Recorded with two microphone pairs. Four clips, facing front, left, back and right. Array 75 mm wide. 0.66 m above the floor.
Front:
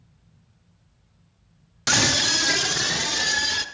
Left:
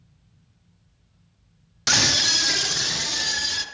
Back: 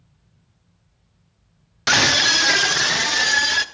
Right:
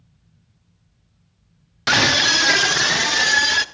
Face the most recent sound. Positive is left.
turn(degrees=-120)